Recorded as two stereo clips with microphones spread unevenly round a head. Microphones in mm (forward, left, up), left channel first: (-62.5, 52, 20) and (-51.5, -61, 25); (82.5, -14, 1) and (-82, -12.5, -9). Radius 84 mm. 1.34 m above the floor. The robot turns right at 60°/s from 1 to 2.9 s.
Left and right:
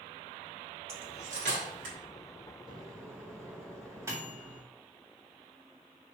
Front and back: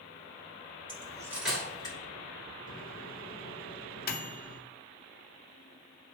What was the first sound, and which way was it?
Cutlery clinking, 120° right.